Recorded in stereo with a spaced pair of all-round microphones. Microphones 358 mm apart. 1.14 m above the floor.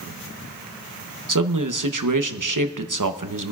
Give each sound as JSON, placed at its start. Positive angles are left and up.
{"t": 1.3, "sound": "a man speaking", "side_deg": -60, "distance_m": 1.0}